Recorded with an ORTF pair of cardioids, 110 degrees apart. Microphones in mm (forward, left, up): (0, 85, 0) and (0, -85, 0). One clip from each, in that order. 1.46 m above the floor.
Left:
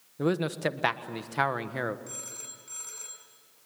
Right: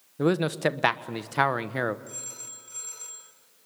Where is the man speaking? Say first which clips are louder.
Right 4 dB; 20° right, 1.2 m.